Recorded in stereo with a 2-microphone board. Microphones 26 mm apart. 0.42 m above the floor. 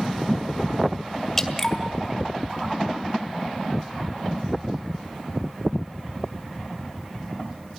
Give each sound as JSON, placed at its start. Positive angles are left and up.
{"t": 1.4, "sound": "dripping", "side_deg": 15, "distance_m": 1.7}